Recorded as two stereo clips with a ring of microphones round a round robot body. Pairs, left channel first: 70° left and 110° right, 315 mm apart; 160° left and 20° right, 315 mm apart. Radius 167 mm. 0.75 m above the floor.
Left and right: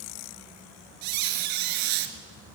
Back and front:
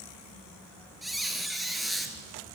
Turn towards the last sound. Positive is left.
turn(degrees=-110)